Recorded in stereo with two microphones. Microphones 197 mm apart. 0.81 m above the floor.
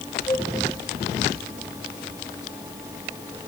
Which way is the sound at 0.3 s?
20° left (ahead or behind).